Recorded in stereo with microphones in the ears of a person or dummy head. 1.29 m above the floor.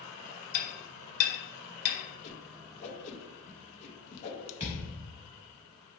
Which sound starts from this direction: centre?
A thud, at 4.6 s.